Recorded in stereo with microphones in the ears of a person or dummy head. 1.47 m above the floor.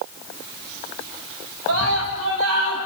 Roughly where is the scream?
Right.